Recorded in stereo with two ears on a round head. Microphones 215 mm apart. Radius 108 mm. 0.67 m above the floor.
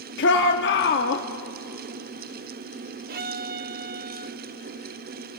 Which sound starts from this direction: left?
A shout, at 0.2 s.